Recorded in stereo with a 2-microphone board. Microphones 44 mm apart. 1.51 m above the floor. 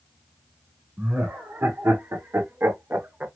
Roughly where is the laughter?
Right.